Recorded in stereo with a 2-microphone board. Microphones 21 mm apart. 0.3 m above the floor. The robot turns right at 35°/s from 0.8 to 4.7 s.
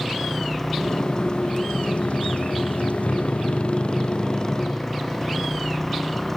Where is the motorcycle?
5° left (ahead or behind); by 6.4 s 20° left (ahead or behind).